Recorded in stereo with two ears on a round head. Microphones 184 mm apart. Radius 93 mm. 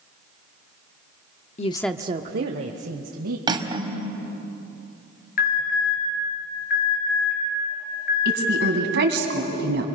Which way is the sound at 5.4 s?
45° left (ahead or behind).